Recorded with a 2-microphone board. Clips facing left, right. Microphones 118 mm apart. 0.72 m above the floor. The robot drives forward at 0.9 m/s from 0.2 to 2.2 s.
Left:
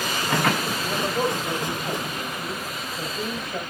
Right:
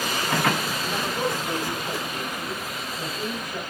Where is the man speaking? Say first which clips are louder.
Left 3 dB; 40° left (ahead or behind), 3 m; by 3.6 s 30° left (ahead or behind), 4 m.